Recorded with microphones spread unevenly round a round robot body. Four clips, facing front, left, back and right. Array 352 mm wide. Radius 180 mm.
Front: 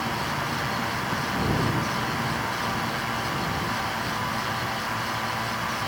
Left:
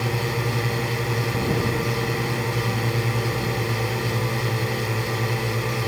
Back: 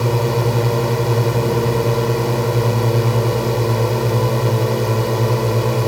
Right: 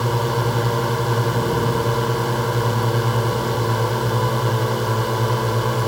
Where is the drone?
170° right.